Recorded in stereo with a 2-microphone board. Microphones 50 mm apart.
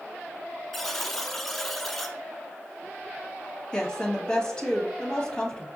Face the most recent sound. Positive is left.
turn(degrees=15)  # may be behind; listen again after turning